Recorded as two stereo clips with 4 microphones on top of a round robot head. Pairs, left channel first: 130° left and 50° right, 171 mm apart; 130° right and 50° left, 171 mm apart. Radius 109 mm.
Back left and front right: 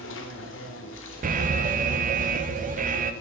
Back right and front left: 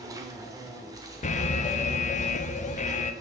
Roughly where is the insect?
Behind left.